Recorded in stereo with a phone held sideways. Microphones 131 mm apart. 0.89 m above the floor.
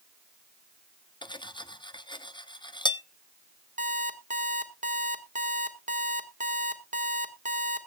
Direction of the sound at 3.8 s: 80° right.